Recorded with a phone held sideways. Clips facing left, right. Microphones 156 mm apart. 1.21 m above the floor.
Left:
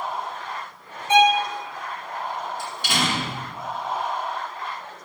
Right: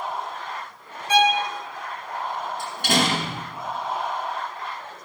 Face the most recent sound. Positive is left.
turn(degrees=-60)  # may be behind; listen again after turning